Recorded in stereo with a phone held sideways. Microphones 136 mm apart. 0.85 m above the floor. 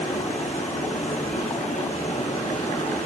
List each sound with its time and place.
0.0 s running water: 60° left (ahead or behind), 3 m